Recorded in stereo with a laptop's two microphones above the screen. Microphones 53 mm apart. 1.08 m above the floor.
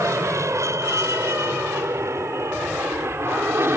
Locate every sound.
0.0 s an aircraft: 70° right (ahead or behind); by 3.8 s 50° right (ahead or behind)